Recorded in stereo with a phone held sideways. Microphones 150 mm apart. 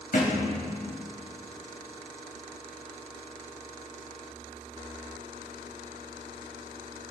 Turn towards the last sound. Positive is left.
turn(degrees=65)  # may be behind; listen again after turning